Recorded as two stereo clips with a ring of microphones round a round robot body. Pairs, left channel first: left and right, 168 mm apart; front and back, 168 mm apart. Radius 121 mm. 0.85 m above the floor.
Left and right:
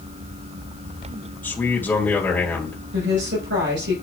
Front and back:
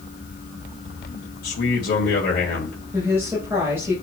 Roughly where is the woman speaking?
Right.